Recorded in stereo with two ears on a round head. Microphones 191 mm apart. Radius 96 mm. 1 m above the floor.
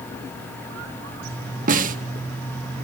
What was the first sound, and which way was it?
A snare drum, 40° right (ahead or behind).